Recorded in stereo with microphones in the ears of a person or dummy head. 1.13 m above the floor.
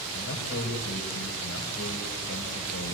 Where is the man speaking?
70° left (ahead or behind), 5 m.